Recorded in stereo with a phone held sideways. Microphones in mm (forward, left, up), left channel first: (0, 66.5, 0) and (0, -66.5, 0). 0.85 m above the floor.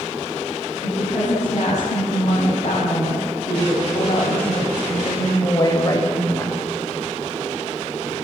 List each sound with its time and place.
0.8 s a woman speaking: 55° left (ahead or behind), 7 m; by 6.6 s 15° left (ahead or behind), 3 m